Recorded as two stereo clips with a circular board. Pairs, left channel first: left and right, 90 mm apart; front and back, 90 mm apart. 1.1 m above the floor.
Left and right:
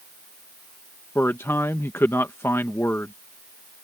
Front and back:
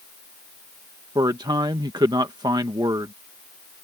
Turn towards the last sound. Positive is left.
turn(degrees=150)